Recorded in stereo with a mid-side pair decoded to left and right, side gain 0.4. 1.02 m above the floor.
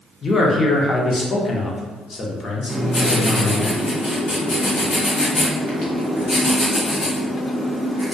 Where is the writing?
55° left, 1.4 m.